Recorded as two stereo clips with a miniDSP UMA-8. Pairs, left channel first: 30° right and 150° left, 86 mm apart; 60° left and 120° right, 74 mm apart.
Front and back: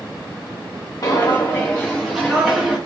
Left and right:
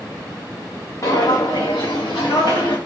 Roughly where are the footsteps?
Ahead.